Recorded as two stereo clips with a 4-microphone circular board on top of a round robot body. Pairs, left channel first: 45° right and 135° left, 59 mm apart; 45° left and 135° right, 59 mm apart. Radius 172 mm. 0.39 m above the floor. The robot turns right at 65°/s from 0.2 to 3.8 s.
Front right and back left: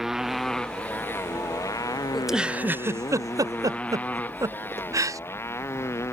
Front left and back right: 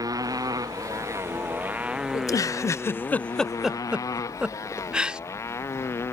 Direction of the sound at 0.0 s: 140° right.